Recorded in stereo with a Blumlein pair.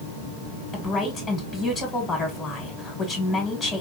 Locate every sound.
0.7 s a woman speaking: 20° left, 1.8 m